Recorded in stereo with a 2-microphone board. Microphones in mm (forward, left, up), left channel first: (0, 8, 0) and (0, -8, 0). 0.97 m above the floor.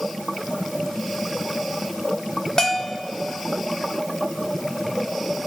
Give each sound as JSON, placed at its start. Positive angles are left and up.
{"t": 2.6, "sound": "a bell", "side_deg": 45, "distance_m": 1.1}